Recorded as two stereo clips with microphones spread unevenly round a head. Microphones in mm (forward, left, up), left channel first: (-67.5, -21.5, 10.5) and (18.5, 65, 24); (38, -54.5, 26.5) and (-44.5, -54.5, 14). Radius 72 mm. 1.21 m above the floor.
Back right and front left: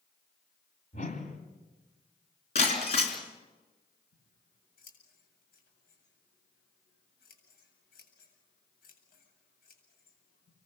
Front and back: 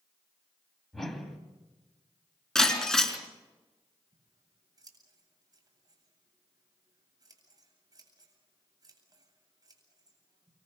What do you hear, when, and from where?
0.9 s a whoosh: 85° right, 2.5 m
2.5 s breaking glass: 80° right, 3.5 m
4.1 s scissors: 140° right, 8 m